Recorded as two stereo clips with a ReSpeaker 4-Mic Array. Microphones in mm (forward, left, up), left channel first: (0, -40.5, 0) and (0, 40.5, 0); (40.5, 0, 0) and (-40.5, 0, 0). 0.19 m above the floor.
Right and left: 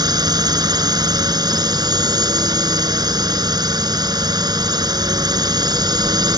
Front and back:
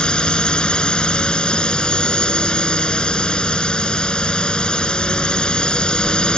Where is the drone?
75° left.